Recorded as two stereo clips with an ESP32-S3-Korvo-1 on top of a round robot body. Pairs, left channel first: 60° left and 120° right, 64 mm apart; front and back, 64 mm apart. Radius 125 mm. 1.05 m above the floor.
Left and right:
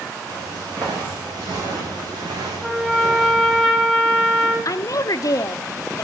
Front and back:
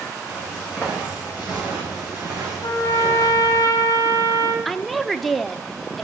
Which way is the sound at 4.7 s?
90° left.